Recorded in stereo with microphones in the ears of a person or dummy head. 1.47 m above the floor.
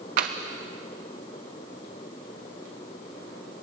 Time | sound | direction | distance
0.2 | tapping | 35° right (ahead or behind) | 0.8 m